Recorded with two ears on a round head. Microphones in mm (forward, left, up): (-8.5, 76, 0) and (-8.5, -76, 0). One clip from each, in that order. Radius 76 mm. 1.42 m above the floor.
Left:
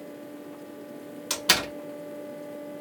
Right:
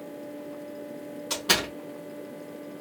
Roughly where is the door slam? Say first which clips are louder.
Left 1 dB; left.